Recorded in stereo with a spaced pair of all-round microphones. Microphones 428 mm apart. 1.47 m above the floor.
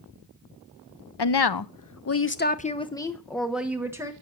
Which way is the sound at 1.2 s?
70° left (ahead or behind).